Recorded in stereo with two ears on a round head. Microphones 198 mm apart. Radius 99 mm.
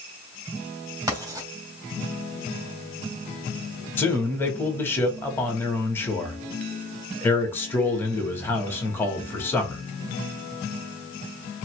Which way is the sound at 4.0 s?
10° left (ahead or behind).